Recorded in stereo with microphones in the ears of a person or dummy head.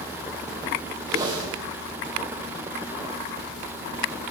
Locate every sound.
1.1 s a whoosh: 20° right (ahead or behind), 2.5 m